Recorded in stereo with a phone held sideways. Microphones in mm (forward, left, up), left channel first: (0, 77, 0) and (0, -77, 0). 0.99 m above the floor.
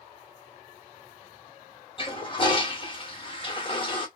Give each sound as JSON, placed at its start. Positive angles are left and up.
{"t": 2.0, "sound": "a toilet flushing", "side_deg": 35, "distance_m": 0.9}